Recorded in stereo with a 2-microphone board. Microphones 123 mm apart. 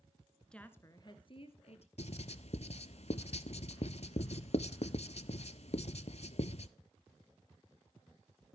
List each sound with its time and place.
0.5 s a woman speaking: 5° left (ahead or behind), 1.2 m; by 1.9 s 60° left (ahead or behind), 2 m
2.0 s writing: 60° left (ahead or behind), 0.5 m